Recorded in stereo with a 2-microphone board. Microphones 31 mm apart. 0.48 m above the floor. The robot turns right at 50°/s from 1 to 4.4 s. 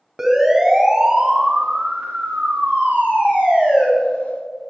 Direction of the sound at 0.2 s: 10° right (ahead or behind).